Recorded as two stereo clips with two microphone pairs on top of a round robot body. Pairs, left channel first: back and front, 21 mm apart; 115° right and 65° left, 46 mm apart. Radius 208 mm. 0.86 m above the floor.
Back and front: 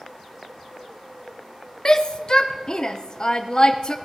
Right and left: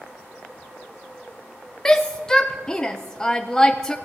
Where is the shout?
165° right, 0.9 m.